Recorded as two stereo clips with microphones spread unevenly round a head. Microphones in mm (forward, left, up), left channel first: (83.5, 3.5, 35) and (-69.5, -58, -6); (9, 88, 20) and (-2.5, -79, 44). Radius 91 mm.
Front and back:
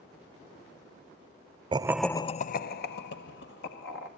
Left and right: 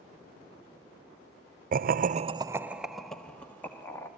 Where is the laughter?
120° right, 0.6 m; by 4.1 s 10° left, 2 m.